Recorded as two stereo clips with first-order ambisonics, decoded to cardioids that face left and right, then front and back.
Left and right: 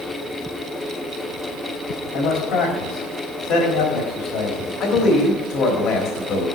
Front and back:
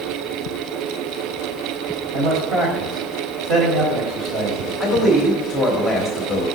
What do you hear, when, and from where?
2.1 s a man speaking: 120° left, 3 m
4.8 s a man speaking: 75° left, 1.4 m